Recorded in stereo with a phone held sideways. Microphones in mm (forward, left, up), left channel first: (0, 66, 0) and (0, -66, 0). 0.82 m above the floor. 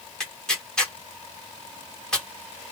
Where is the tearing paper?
5° left (ahead or behind), 1.0 m.